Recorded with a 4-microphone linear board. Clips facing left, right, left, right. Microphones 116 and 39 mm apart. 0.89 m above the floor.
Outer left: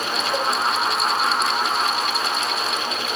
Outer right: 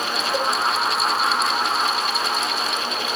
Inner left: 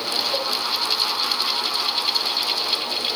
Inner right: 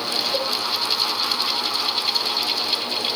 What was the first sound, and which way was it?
A cowbell, 25° left (ahead or behind).